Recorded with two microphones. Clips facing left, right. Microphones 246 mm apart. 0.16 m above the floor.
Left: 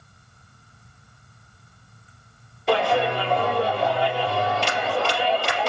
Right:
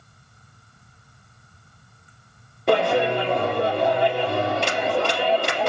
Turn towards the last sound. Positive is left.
turn(degrees=-60)  # may be behind; listen again after turning